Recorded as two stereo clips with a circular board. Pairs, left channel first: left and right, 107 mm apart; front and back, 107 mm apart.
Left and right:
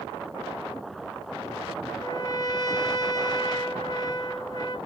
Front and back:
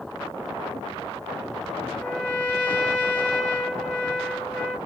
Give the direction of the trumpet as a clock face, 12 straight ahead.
9 o'clock.